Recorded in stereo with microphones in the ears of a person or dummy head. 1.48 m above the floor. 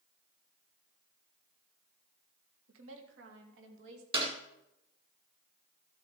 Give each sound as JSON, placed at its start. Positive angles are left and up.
{"t": 2.7, "sound": "a woman speaking", "side_deg": -75, "distance_m": 1.9}
{"t": 4.1, "sound": "a clap", "side_deg": -25, "distance_m": 2.0}